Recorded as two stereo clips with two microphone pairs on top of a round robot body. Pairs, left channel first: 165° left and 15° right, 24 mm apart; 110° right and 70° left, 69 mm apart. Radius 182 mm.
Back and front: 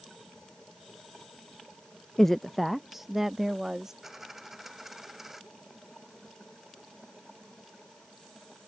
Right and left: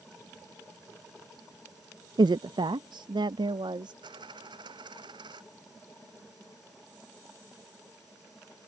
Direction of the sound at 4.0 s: 60° left.